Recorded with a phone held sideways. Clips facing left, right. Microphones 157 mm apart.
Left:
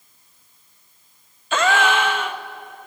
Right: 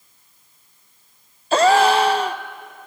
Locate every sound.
1.5 s a gasp: 35° right (ahead or behind), 0.6 m